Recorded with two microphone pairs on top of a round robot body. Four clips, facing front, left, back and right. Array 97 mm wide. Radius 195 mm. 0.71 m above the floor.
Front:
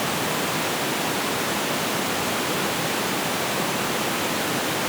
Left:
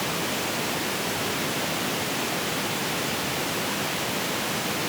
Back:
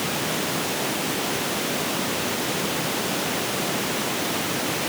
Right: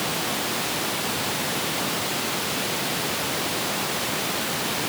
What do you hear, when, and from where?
Only background noise.